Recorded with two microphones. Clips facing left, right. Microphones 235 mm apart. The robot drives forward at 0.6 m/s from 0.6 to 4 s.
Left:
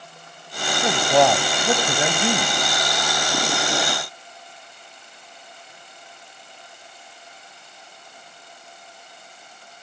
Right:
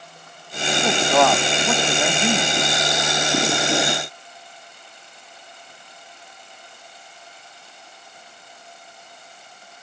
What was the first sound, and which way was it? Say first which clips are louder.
A man speaking: left 1 dB; 15° left (ahead or behind).